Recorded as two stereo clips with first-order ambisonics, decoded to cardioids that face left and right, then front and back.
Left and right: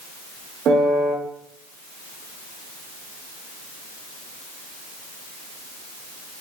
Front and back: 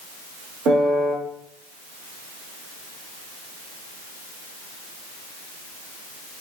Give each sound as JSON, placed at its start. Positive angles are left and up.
{"t": 0.7, "sound": "a piano", "azimuth_deg": -135, "distance_m": 2.5}